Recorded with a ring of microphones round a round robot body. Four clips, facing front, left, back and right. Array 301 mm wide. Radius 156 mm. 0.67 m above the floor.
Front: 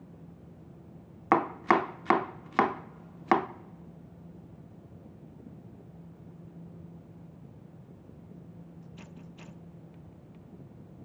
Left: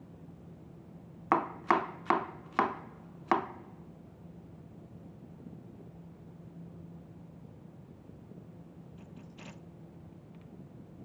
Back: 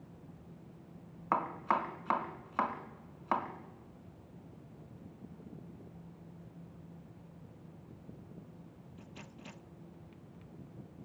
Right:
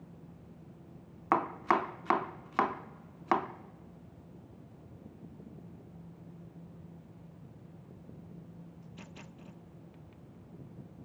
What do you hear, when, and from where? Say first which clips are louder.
1.3 s chopping: left 1 dB, front 8 dB; 5° left, 0.6 m